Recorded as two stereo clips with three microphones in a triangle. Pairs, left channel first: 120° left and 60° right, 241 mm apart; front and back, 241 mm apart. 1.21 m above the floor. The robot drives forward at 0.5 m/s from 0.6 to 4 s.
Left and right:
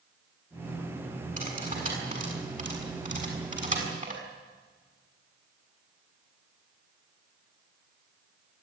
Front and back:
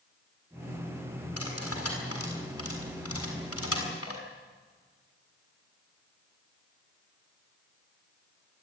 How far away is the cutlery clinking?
About 7.5 m.